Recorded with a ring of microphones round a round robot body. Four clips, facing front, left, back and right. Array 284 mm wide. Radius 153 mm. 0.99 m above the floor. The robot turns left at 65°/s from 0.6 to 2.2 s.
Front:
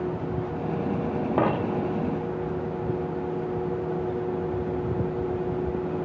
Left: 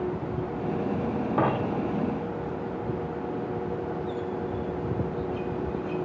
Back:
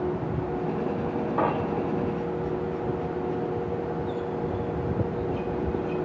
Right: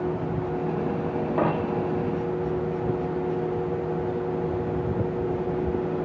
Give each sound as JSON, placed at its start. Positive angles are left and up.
{"t": 1.4, "sound": "a dropped coin", "azimuth_deg": 0, "distance_m": 1.4}